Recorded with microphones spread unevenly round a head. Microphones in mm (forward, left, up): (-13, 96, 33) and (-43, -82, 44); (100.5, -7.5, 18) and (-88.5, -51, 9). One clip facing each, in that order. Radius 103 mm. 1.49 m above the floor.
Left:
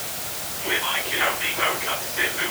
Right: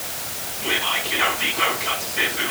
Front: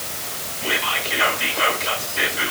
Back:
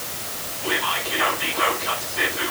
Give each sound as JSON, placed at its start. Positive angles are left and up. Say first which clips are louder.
{"t": 0.6, "sound": "whispering", "louder": "right 1 dB, even", "azimuth_deg": -45, "distance_m": 5.5}